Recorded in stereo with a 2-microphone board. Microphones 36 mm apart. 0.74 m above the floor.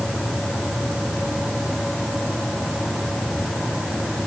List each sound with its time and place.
Only background noise.